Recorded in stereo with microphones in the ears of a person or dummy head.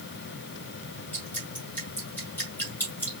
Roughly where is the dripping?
Centre.